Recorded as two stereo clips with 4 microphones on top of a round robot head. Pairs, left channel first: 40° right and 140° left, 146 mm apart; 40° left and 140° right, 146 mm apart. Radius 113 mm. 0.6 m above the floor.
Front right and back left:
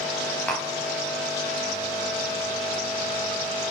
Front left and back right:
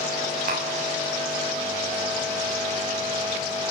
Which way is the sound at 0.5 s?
120° right.